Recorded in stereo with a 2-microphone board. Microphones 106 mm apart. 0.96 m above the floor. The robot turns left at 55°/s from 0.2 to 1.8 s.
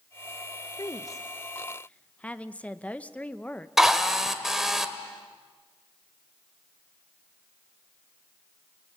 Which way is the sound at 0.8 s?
75° left.